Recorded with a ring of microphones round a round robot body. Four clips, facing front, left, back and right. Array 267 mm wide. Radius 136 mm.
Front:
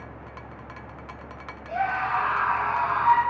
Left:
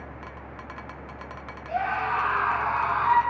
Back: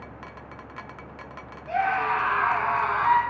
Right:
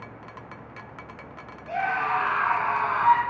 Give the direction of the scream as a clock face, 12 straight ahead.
5 o'clock.